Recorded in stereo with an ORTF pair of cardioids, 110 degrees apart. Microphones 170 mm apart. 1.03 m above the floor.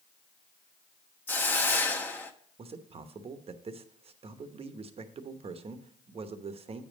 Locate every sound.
1.3 s a hiss: 10° left, 0.8 m
2.6 s a man speaking: 35° right, 0.9 m